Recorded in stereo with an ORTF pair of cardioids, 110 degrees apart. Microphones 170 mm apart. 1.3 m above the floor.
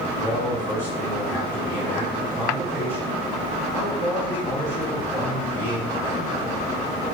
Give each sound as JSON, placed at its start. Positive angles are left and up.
{"t": 0.2, "sound": "a man speaking", "azimuth_deg": 10, "distance_m": 1.4}